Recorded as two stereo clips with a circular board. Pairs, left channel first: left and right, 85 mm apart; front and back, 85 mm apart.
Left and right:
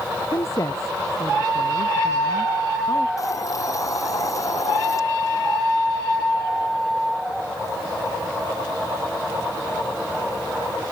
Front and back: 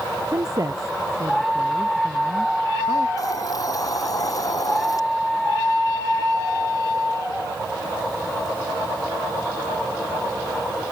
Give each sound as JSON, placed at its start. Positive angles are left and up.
{"t": 0.3, "sound": "a woman speaking", "azimuth_deg": 135}
{"t": 3.2, "sound": "a hiss", "azimuth_deg": 45}